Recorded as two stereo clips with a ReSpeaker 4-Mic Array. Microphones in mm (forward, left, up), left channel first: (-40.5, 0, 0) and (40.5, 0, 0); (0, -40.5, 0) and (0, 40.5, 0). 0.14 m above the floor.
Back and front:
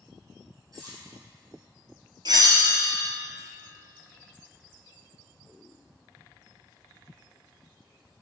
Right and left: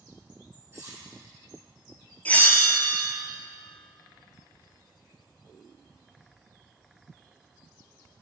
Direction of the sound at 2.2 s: 20° right.